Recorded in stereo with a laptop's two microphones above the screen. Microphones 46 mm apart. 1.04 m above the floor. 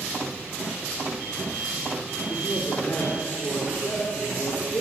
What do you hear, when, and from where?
2.3 s a man speaking: 60° left (ahead or behind), 3 m